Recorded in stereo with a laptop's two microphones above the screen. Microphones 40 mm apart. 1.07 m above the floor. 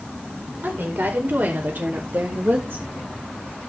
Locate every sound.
0.6 s a woman speaking: 65° right (ahead or behind), 4 m; by 2.9 s 60° right (ahead or behind), 1.1 m